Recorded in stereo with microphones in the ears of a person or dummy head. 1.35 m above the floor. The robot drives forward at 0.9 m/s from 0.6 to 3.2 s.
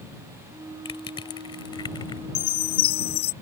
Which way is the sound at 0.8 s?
25° left (ahead or behind).